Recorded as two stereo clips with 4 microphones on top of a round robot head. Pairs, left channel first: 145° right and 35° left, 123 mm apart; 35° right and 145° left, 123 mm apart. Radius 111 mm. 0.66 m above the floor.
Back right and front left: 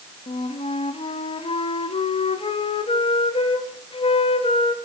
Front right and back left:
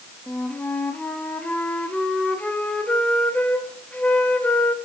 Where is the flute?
115° right, 1.2 m.